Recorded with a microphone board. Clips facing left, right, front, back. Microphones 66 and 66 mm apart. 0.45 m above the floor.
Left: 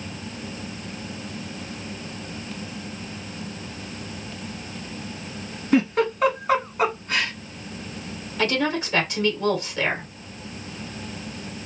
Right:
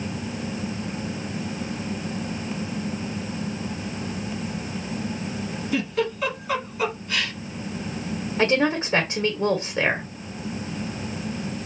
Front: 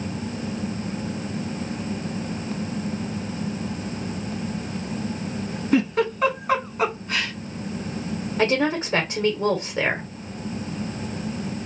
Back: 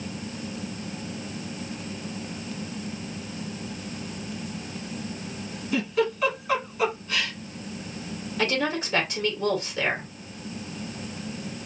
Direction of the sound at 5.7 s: 45° left.